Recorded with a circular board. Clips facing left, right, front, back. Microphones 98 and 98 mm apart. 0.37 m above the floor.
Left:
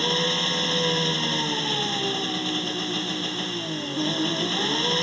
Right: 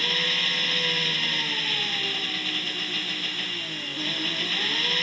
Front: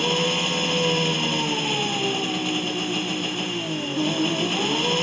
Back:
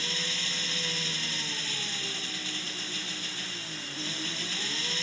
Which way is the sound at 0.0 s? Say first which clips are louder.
Left 6 dB, front 15 dB; 30° left.